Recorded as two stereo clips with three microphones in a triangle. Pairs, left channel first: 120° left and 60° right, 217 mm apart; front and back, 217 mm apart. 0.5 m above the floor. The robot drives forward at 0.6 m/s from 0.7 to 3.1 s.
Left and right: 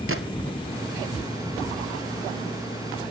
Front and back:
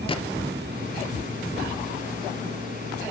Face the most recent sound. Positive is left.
turn(degrees=-120)